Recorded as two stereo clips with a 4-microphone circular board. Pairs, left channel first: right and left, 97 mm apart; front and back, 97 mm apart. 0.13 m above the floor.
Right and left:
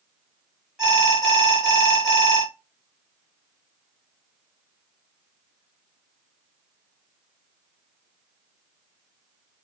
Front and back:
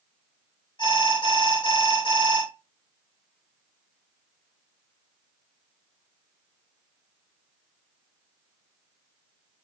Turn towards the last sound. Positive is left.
turn(degrees=10)